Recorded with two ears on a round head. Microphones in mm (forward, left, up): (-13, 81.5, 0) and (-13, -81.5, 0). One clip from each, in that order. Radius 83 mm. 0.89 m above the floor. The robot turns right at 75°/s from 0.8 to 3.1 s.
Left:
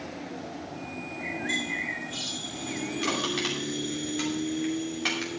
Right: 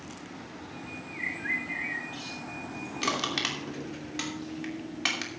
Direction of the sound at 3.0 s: 30° right (ahead or behind).